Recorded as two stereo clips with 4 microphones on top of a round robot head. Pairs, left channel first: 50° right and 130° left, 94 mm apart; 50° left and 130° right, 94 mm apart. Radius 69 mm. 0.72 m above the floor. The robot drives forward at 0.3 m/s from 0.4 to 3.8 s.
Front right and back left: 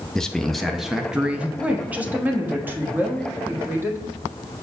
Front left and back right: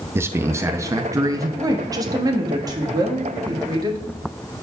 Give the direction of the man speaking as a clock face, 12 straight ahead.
4 o'clock.